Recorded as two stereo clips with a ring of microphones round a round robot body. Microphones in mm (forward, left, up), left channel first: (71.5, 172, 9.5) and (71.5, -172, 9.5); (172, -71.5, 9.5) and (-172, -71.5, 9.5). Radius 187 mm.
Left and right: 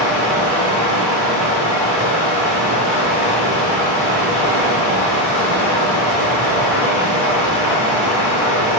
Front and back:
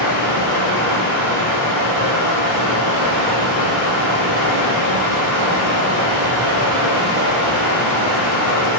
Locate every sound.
0.0 s running water: 100° left, 1.5 m